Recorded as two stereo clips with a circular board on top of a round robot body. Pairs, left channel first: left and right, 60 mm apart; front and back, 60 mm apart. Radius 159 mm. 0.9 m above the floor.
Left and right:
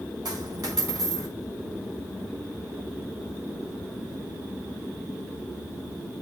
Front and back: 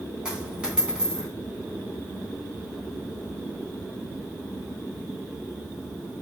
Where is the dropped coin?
105° right, 3.5 m.